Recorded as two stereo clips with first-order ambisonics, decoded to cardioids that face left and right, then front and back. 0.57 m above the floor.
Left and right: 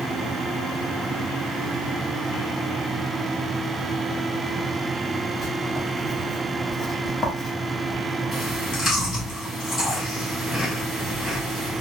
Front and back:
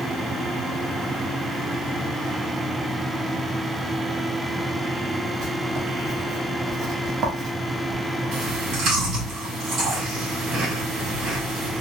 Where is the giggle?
I don't hear a giggle.